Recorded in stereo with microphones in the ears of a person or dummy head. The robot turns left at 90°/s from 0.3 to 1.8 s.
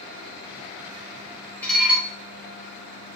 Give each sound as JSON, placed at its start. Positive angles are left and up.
{"t": 1.6, "sound": "dishes clattering", "side_deg": 10, "distance_m": 2.5}